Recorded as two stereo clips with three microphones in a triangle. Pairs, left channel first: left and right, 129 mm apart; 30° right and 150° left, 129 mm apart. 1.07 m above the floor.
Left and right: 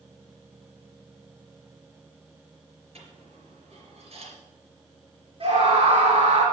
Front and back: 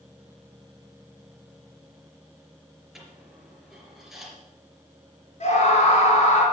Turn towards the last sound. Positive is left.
turn(degrees=-55)